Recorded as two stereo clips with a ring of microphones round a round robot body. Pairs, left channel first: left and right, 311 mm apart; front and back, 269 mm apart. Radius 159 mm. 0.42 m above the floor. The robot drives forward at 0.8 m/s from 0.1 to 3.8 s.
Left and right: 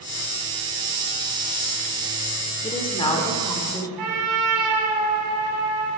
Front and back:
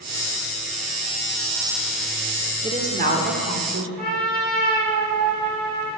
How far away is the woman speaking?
About 1.3 m.